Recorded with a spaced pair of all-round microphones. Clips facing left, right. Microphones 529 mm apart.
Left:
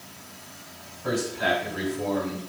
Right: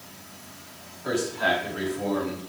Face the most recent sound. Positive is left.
turn(degrees=40)  # may be behind; listen again after turning